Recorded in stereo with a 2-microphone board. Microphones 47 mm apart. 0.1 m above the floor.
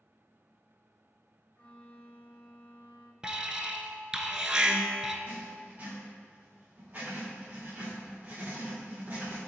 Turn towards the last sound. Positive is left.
turn(degrees=-35)  # may be behind; listen again after turning